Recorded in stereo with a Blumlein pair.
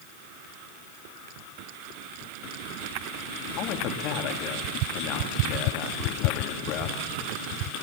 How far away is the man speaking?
About 3.5 m.